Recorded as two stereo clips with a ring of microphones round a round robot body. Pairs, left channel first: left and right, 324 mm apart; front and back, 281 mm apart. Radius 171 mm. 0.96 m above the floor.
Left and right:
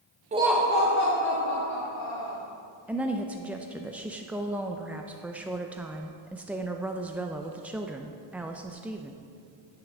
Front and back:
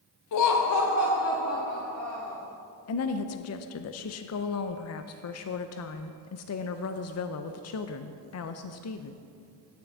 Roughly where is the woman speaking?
Ahead.